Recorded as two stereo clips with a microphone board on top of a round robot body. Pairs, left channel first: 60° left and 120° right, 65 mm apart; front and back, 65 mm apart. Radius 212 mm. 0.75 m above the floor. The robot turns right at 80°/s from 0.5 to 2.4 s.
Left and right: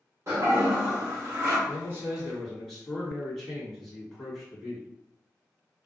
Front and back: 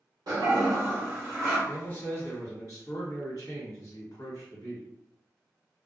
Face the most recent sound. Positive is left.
turn(degrees=-30)